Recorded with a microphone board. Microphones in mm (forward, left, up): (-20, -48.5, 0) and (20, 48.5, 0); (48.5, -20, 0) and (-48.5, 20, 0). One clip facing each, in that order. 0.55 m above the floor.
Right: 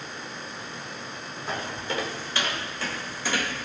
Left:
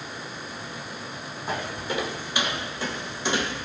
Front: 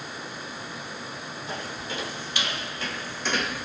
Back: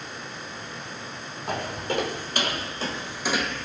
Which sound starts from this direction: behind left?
Footsteps, at 1.5 s.